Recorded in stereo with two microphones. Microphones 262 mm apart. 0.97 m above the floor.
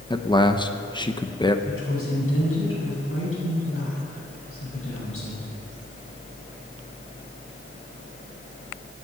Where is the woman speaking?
50° left (ahead or behind), 6.5 m.